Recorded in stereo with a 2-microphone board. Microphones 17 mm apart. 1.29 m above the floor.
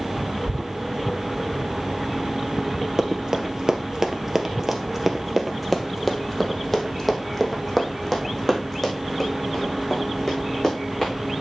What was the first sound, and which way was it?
Running footsteps, 35° right (ahead or behind).